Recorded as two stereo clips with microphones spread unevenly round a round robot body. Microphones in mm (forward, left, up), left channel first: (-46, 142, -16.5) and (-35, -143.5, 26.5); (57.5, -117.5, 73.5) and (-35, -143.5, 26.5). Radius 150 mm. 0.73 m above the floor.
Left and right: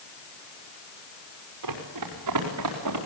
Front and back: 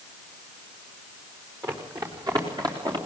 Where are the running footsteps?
105° right, 5 m; by 3.0 s 115° right, 5 m.